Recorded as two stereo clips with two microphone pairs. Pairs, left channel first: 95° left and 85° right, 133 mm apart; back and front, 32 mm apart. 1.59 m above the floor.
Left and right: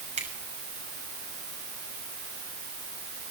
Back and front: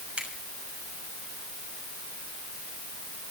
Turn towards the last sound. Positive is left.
turn(degrees=-60)